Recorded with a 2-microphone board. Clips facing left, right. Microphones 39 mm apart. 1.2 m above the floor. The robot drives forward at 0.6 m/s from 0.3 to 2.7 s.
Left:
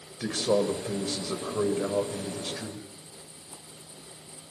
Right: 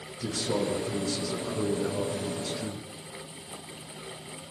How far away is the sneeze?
No sneeze in this recording.